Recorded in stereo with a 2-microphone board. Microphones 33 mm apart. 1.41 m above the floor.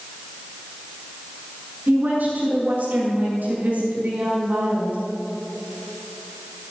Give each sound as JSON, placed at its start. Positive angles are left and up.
{"t": 1.9, "sound": "a woman speaking", "side_deg": -60, "distance_m": 3.5}